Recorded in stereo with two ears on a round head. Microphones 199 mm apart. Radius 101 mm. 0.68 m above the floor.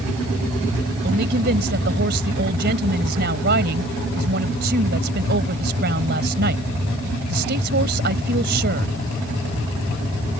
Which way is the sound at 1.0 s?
45° right (ahead or behind).